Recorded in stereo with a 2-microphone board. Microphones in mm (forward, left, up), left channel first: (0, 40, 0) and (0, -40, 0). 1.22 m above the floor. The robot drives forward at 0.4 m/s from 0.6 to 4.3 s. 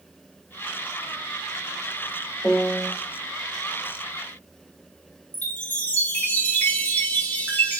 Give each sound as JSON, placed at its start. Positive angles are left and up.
{"t": 2.4, "sound": "a piano", "side_deg": 25, "distance_m": 4.0}
{"t": 5.3, "sound": "a chime", "side_deg": 20, "distance_m": 4.5}